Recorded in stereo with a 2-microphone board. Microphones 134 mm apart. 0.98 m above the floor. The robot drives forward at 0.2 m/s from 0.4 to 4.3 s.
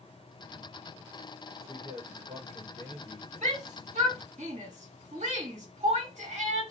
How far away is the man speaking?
About 1.3 m.